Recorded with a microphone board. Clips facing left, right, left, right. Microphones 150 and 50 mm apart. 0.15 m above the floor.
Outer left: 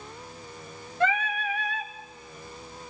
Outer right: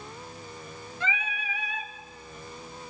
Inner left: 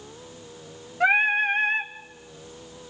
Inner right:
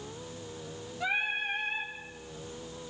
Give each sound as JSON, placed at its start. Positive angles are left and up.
{"t": 1.0, "sound": "singing", "side_deg": 60, "distance_m": 0.8}